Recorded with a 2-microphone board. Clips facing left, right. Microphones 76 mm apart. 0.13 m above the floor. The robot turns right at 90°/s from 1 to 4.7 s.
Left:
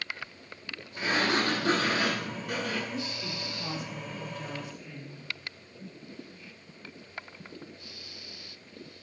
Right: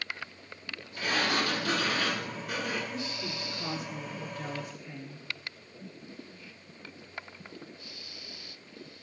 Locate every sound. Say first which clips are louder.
1.0 s a sliding door: left 2 dB; 45° left, 1.5 m; by 2.8 s 150° right, 1.5 m
2.9 s a woman speaking: left 1 dB; 175° left, 1.2 m; by 5.3 s 25° right, 1.2 m